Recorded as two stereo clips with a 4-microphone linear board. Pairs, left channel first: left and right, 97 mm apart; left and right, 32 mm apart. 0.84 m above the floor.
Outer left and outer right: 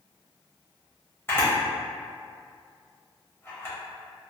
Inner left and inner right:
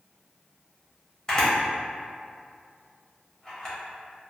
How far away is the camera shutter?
About 0.8 m.